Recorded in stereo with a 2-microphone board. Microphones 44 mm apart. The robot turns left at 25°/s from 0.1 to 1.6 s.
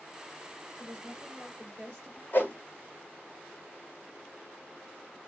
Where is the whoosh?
40° left (ahead or behind), 1.4 m.